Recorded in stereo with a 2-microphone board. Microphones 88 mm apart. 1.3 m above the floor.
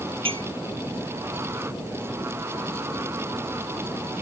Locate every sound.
0.2 s a clink: 75° right (ahead or behind)